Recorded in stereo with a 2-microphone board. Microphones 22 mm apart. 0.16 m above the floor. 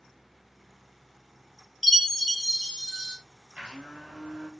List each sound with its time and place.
1.8 s a chime: 5° left (ahead or behind), 1.5 m
3.5 s a blender: 70° right (ahead or behind), 1.8 m